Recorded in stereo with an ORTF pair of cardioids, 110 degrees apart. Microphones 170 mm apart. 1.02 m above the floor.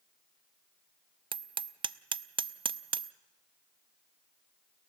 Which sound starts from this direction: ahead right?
Hammering, at 1.3 s.